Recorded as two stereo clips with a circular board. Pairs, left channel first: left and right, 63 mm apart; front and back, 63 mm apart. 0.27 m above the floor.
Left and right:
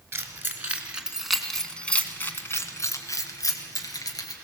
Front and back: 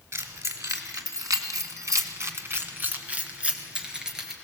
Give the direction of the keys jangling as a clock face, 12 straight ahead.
5 o'clock.